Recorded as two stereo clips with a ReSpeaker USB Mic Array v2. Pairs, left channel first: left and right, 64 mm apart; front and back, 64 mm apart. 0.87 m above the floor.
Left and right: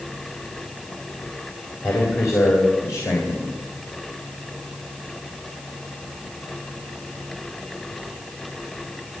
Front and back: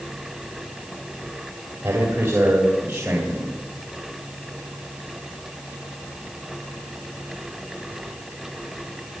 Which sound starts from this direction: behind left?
A man speaking, at 1.8 s.